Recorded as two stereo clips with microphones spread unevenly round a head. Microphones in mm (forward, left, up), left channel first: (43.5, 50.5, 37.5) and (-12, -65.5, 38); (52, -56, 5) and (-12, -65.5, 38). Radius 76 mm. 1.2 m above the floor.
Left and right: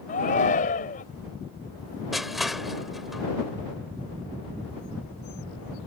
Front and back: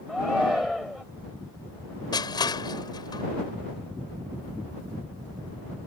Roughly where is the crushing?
Ahead right.